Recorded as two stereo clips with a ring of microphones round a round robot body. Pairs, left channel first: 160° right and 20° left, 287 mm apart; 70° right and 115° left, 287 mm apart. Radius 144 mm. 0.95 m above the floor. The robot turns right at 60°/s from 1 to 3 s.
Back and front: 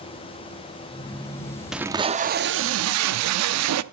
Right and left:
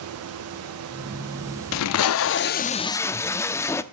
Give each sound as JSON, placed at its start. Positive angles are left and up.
{"t": 1.7, "sound": "tape being pulled", "azimuth_deg": -65, "distance_m": 0.5}